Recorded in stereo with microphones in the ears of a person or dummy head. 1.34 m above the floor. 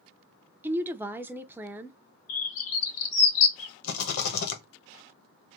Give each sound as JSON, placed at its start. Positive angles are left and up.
{"t": 0.6, "sound": "a woman speaking", "side_deg": -10, "distance_m": 0.6}
{"t": 2.3, "sound": "a bird", "side_deg": 60, "distance_m": 2.0}
{"t": 3.8, "sound": "a rattle", "side_deg": 65, "distance_m": 1.1}